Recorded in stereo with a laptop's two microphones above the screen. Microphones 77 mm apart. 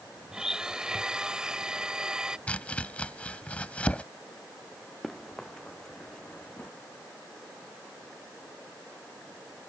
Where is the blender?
10° right (ahead or behind).